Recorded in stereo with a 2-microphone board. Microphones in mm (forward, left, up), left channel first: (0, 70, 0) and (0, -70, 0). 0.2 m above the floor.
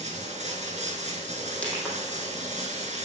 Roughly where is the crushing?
Centre.